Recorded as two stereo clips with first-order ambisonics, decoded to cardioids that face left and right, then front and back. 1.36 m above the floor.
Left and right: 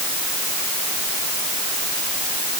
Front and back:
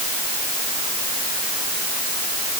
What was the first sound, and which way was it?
Only background noise.